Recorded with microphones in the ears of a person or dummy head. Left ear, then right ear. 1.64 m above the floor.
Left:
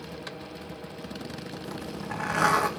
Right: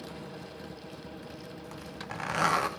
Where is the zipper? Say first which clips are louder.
Left 5 dB; 15° right (ahead or behind), 2 m.